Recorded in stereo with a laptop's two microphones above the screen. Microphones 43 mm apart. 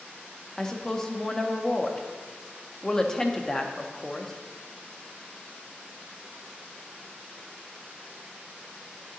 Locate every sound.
0.6 s a woman speaking: 15° left (ahead or behind), 0.7 m